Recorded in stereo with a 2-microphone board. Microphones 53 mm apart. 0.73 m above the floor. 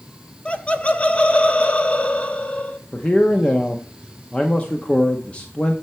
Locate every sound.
0.5 s laughter: 20° left (ahead or behind), 1.0 m
2.9 s a man speaking: 20° left (ahead or behind), 0.8 m